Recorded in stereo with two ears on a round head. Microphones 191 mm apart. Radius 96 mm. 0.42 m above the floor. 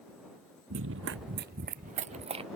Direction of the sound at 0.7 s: 75° right (ahead or behind).